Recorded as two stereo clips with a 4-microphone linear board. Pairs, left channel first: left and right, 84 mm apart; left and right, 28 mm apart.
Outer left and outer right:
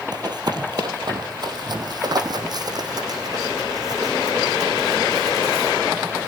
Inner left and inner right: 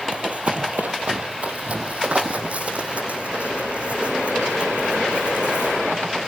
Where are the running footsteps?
50° right (ahead or behind), 2.5 m; by 5.8 s 45° right (ahead or behind), 7 m.